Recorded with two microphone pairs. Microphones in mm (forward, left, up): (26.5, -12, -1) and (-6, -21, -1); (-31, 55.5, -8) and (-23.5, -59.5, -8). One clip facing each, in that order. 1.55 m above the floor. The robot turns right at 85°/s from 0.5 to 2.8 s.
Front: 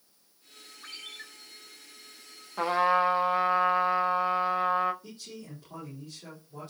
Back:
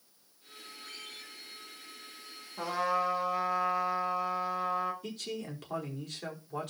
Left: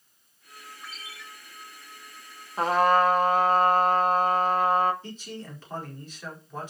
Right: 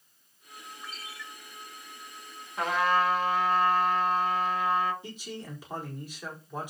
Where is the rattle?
I don't hear a rattle.